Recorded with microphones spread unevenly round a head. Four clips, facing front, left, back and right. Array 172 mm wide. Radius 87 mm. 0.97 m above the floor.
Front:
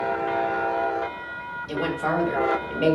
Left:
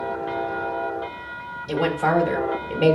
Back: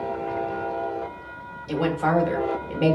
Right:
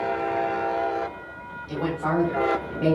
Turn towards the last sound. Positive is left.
turn(degrees=110)